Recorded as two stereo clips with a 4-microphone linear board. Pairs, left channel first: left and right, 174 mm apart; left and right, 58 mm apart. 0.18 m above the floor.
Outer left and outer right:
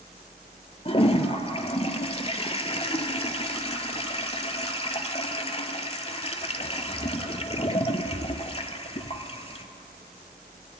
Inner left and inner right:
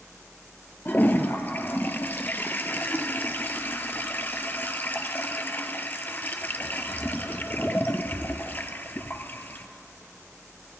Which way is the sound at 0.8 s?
35° left (ahead or behind).